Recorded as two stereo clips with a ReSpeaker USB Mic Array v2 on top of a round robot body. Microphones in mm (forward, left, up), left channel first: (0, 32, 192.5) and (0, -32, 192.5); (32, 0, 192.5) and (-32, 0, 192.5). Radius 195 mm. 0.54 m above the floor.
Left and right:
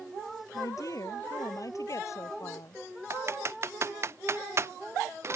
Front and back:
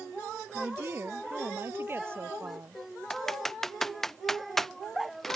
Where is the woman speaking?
125° left.